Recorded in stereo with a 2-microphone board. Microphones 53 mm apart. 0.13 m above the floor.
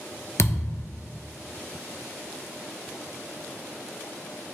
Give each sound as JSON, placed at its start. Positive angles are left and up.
{"t": 0.4, "sound": "a thud", "side_deg": 55, "distance_m": 0.5}